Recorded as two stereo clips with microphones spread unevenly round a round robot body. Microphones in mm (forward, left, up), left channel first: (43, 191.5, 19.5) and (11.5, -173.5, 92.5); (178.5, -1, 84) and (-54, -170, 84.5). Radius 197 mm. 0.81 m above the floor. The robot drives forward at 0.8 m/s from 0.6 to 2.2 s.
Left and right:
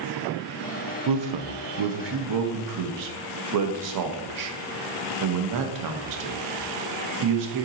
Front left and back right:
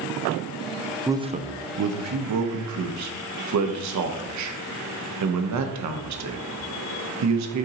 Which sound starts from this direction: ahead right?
A man speaking, at 1.1 s.